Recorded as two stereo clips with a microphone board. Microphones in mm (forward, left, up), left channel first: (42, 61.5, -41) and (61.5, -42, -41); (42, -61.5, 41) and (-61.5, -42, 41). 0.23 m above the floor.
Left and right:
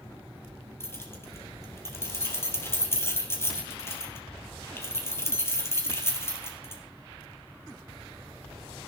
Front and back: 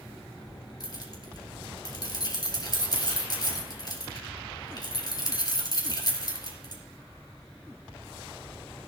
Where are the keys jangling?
35° left, 4 m.